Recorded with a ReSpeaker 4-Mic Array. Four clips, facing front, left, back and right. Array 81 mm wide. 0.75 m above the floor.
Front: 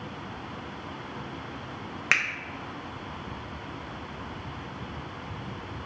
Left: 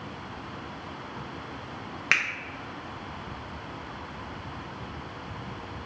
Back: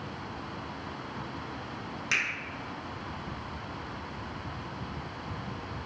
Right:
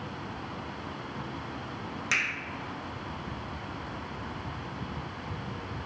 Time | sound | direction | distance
2.1 | a finger snap | 35° left | 0.6 m